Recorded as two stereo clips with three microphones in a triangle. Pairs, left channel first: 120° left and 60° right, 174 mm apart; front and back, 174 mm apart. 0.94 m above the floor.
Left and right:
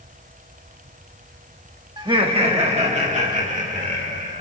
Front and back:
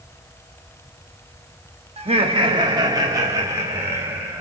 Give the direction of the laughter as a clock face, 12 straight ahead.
4 o'clock.